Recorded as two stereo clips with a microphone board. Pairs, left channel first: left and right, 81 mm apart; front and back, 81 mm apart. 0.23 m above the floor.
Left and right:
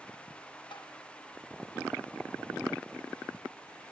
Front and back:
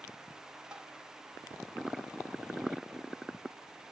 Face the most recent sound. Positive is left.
turn(degrees=100)